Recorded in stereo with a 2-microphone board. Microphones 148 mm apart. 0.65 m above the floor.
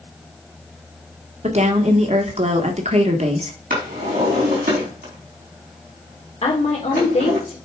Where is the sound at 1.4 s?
50° right (ahead or behind), 1.4 m.